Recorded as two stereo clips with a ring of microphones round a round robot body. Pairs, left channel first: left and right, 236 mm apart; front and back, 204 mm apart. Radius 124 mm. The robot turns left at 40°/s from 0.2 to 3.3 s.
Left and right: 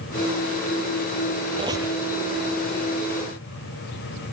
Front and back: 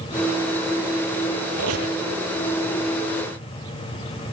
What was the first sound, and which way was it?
A squeak, 160° right.